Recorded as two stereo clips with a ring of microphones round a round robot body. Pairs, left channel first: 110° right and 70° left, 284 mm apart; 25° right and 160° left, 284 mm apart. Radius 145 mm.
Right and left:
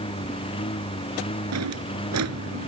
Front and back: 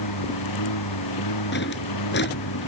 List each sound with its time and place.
0.0 s a lawn mower: 40° right
1.5 s a drawer: 30° left